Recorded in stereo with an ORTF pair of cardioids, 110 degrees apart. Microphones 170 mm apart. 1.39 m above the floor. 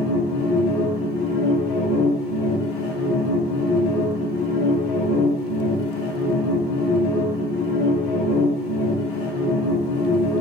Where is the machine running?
65° left, 2.5 m.